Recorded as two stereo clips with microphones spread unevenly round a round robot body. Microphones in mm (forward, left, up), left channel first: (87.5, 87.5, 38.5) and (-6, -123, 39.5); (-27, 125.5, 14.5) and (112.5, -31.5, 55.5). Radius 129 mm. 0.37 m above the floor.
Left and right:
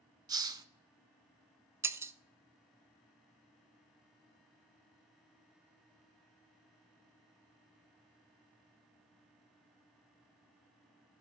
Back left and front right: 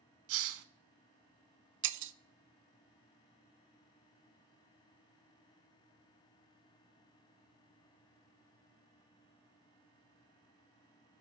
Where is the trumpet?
No trumpet in this recording.